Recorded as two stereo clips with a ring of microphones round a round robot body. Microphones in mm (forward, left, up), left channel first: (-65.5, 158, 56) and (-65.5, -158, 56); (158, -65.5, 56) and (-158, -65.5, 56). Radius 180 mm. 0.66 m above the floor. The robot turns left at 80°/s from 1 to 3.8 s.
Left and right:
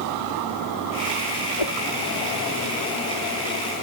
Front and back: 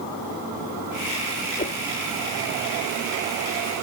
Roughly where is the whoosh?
Left.